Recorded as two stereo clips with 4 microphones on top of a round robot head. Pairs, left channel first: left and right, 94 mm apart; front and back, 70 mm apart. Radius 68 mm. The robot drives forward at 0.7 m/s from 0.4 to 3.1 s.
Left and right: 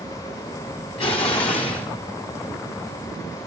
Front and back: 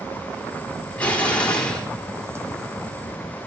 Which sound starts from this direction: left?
An explosion, at 1.0 s.